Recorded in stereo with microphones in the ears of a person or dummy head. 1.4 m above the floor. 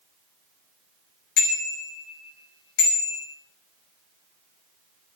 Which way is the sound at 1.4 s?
65° left (ahead or behind).